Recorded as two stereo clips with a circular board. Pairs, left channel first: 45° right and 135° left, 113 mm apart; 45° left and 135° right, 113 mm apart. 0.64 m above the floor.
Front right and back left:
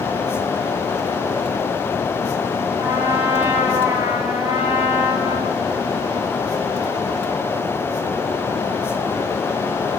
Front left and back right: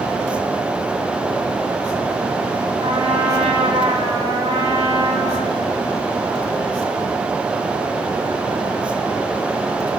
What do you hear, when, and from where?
2.8 s a trumpet: 160° right, 4.5 m